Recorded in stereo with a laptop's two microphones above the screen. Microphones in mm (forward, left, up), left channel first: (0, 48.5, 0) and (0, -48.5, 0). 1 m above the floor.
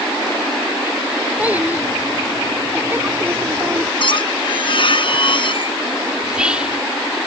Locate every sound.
1.4 s a child speaking: 15° right (ahead or behind); by 3.9 s 25° right (ahead or behind)
4.0 s a squeak: 60° left (ahead or behind)
6.2 s whispering: 10° right (ahead or behind)